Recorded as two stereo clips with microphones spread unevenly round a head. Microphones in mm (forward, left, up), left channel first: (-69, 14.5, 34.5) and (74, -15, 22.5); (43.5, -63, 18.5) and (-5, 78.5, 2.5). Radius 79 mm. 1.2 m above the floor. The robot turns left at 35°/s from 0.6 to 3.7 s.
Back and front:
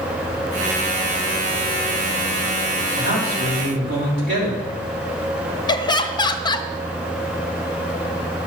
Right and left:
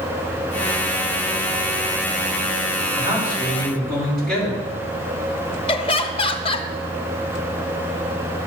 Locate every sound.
2.9 s a man speaking: 45° left, 5 m; by 4.7 s 15° left, 5 m
5.7 s laughter: 130° right, 0.7 m